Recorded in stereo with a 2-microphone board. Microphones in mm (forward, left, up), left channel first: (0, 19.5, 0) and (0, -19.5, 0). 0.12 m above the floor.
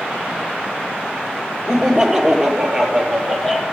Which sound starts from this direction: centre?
Laughter, at 1.7 s.